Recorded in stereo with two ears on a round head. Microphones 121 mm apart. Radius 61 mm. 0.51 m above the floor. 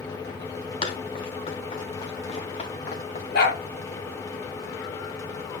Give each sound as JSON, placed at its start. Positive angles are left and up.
{"t": 0.8, "sound": "running footsteps", "side_deg": 45, "distance_m": 5.0}
{"t": 3.3, "sound": "a dog barking", "side_deg": 90, "distance_m": 4.0}